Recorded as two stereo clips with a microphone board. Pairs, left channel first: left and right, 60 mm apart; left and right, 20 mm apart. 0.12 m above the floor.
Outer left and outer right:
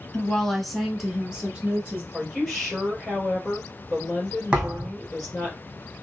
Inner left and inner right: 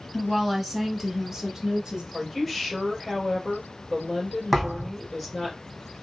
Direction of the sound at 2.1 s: Centre (ahead or behind).